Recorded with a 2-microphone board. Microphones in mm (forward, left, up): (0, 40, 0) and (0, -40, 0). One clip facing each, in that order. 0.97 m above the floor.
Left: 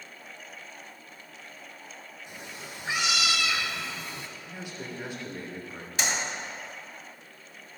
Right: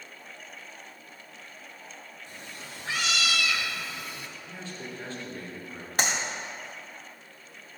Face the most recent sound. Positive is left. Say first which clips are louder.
# right 2 dB
turn(degrees=-55)  # may be behind; listen again after turning